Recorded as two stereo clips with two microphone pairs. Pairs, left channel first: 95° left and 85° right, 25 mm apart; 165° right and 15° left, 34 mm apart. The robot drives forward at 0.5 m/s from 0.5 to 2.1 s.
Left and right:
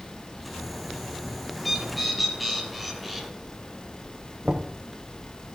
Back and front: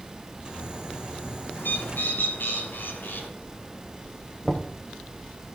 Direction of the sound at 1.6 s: 175° right.